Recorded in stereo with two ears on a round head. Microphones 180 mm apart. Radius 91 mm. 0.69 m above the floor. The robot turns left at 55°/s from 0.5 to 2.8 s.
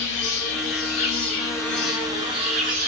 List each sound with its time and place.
0.0 s an insect: 75° left, 0.9 m; by 2.9 s 55° right, 0.9 m